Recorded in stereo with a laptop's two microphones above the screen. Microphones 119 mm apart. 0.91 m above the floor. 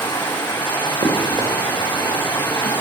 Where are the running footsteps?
80° right, 4.5 m; by 2.7 s 65° right (ahead or behind), 4 m.